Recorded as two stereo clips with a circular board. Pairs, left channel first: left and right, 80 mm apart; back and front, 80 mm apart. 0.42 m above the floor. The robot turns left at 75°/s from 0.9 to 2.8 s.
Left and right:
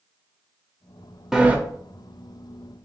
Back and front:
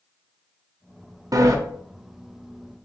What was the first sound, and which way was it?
A sliding door, 10° right.